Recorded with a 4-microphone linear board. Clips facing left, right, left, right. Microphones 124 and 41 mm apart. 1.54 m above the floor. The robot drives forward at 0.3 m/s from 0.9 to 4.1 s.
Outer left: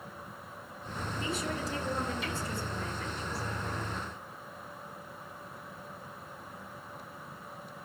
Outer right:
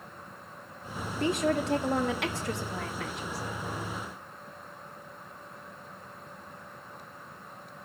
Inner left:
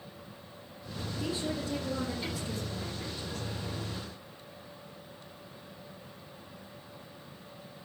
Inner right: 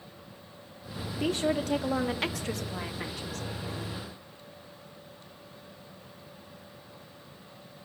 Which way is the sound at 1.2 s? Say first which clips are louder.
Outer right 10 dB, inner right 7 dB; 60° right (ahead or behind).